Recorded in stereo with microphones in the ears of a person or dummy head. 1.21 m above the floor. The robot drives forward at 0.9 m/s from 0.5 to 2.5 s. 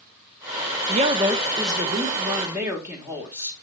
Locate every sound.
0.9 s a woman speaking: 30° right (ahead or behind), 0.6 m; by 3.5 s 10° right (ahead or behind), 1.7 m